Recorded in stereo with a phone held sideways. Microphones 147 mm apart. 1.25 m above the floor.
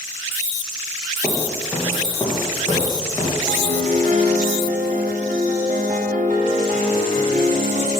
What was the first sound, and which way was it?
Footsteps, 15° right (ahead or behind).